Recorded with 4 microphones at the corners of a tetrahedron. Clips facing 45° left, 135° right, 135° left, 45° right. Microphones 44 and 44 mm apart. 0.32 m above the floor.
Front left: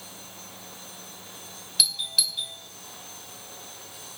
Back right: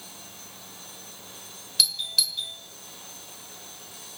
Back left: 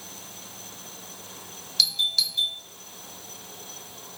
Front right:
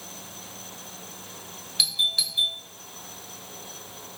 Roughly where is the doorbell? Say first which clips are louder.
Even, even; ahead right.